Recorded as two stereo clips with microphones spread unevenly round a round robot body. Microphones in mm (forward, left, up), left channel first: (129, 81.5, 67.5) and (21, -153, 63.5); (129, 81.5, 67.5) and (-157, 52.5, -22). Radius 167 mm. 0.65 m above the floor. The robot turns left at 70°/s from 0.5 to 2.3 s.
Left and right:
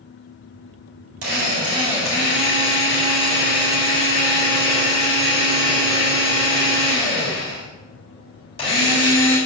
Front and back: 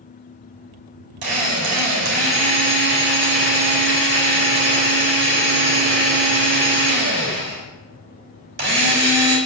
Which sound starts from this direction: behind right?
A drill, at 1.2 s.